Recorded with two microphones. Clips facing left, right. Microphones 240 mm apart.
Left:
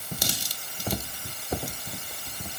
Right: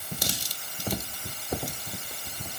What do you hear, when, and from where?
Only background noise.